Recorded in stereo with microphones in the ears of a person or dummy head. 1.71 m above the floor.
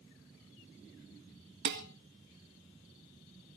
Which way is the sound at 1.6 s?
55° right (ahead or behind).